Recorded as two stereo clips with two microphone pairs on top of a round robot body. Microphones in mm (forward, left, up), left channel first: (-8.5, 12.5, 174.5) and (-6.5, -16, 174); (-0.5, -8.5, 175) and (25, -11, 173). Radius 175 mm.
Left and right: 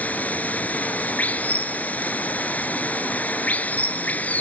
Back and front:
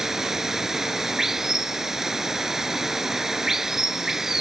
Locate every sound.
0.0 s running water: 65° left